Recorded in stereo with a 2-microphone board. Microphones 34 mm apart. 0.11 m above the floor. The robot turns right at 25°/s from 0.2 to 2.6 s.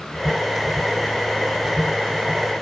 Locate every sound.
Only background noise.